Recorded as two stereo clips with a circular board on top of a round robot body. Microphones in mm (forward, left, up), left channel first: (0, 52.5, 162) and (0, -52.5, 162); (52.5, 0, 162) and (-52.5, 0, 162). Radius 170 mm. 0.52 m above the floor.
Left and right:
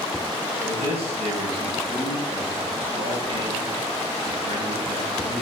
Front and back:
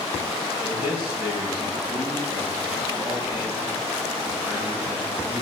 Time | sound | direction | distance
0.6 | a man speaking | 110° right | 5 m